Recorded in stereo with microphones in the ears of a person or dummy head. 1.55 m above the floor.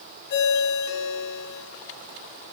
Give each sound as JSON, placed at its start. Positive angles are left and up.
{"t": 0.3, "sound": "a ringtone", "side_deg": 55, "distance_m": 2.0}